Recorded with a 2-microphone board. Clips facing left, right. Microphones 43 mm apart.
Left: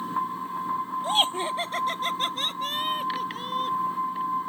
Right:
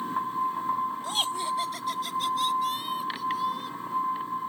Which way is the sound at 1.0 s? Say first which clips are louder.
Left 4 dB; 40° left (ahead or behind).